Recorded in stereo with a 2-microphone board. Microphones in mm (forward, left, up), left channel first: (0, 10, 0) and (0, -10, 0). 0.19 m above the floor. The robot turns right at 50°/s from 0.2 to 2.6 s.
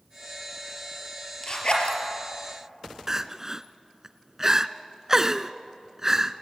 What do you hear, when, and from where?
1.4 s a zipper: 35° left (ahead or behind), 4 m; by 2.0 s 60° left (ahead or behind), 4 m
3.1 s crying: 25° right (ahead or behind), 0.6 m